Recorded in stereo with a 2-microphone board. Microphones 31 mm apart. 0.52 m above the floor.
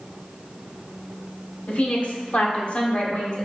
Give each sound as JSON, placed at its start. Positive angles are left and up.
{"t": 1.7, "sound": "a woman speaking", "side_deg": 50, "distance_m": 1.1}